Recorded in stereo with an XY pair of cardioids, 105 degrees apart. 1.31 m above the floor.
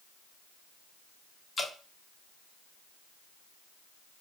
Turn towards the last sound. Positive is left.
turn(degrees=35)